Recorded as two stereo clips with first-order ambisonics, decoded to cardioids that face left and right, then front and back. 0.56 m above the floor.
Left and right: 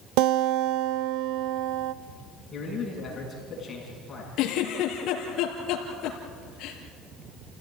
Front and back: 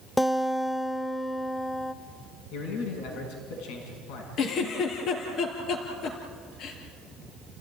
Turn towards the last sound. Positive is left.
turn(degrees=45)